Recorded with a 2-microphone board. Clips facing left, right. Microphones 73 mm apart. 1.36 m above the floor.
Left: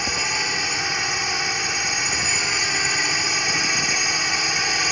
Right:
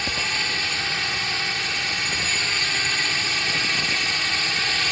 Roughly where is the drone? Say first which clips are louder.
Left 2 dB; centre.